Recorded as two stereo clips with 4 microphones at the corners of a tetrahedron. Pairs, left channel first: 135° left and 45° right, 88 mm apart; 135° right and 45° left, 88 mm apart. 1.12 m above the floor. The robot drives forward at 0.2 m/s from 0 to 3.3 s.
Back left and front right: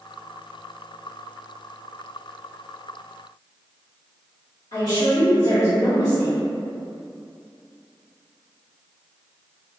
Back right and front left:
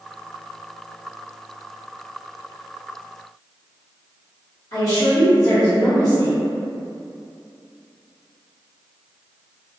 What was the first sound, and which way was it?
A woman speaking, 175° left.